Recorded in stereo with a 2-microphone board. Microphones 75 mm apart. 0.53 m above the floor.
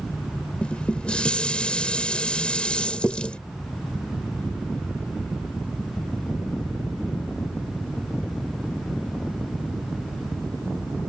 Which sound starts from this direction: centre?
Dishes clattering, at 0.6 s.